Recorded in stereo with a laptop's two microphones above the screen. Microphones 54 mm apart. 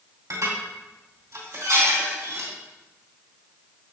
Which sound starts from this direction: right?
Dishes clattering, at 0.3 s.